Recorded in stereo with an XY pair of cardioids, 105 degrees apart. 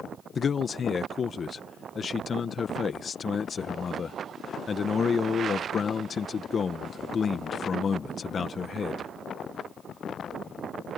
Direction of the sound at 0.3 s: 40° left.